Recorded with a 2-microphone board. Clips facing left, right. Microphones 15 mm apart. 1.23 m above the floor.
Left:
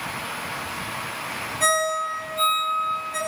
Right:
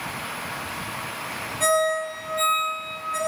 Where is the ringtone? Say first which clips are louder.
Right 1 dB; 20° right (ahead or behind), 1.3 m.